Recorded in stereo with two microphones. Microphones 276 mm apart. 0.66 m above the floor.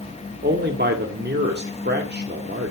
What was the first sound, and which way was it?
A man speaking, 35° right (ahead or behind).